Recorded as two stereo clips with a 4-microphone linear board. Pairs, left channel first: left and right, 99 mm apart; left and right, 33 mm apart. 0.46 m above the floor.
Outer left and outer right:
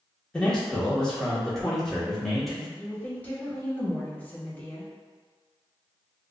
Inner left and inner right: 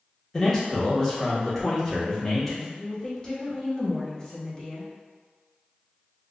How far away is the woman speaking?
About 1.2 m.